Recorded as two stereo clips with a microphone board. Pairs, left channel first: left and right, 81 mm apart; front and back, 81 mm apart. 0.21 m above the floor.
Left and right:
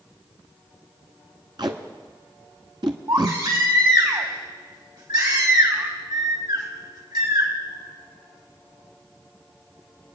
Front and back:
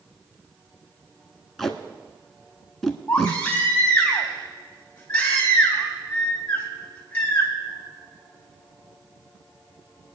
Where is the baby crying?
70° right, 3.5 m.